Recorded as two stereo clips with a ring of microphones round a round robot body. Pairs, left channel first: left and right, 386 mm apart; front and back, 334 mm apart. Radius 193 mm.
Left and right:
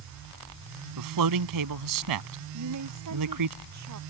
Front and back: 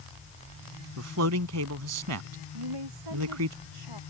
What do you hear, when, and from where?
1.0 s a man speaking: 130° right
2.5 s a woman speaking: 140° right